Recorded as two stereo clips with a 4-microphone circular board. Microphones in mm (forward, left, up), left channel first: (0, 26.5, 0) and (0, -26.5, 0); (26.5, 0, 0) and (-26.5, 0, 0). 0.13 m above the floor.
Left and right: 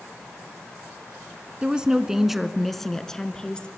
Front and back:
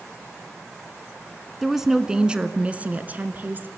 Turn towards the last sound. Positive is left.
turn(degrees=155)